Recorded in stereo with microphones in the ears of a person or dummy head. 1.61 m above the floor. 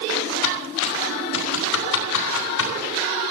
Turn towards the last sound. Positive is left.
turn(degrees=75)  # may be behind; listen again after turning